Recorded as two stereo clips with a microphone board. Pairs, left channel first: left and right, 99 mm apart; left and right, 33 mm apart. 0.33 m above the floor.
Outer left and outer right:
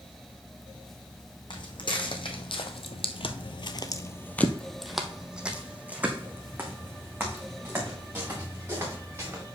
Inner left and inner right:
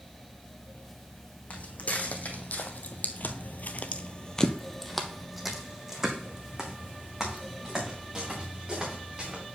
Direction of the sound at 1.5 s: 50° left (ahead or behind).